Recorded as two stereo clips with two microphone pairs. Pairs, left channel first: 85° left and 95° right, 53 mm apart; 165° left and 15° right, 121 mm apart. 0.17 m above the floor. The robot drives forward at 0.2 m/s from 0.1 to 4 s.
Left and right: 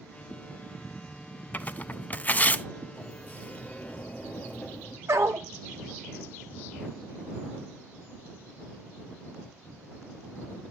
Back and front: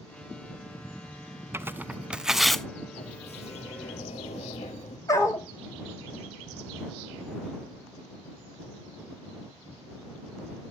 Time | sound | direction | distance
1.5 | tearing paper | 45° left | 0.5 m
2.9 | a sliding door | 140° left | 1.0 m
5.1 | a dog barking | 130° right | 1.2 m